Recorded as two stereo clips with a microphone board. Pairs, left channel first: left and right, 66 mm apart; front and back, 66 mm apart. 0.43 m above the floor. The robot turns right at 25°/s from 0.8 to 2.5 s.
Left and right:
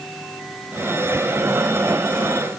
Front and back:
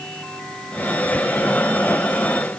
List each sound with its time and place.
Only background noise.